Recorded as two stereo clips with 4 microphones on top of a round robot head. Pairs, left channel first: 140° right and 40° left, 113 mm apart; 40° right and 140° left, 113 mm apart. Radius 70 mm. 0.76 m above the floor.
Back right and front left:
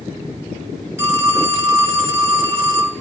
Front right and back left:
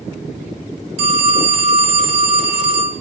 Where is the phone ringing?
110° left, 1.5 m.